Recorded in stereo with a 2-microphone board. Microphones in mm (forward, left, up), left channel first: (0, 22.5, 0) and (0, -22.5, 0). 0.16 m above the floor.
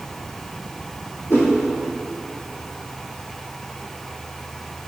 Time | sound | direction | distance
1.3 | a whoosh | 60° left (ahead or behind) | 2.0 m